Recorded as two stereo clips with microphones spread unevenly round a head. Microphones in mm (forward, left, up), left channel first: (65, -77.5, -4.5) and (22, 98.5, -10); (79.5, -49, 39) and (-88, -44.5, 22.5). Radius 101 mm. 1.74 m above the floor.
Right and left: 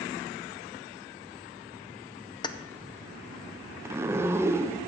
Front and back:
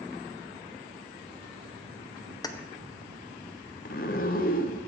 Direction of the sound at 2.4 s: 35° right.